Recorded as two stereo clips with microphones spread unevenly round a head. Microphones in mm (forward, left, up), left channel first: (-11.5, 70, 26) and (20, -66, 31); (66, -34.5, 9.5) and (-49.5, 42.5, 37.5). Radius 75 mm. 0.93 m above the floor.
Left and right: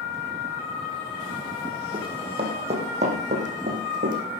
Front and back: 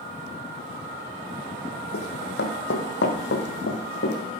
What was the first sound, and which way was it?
Running footsteps, 25° right.